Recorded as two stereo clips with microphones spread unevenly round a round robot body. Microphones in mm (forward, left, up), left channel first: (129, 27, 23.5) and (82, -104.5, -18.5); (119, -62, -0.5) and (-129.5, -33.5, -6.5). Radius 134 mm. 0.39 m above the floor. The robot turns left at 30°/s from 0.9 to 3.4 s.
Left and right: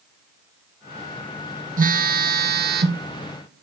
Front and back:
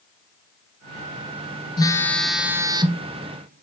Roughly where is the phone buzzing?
Right.